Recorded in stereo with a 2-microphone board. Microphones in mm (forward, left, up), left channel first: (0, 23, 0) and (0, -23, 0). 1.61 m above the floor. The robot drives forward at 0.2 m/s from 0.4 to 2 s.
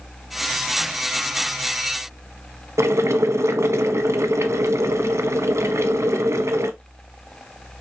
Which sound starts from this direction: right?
Boiling, at 2.8 s.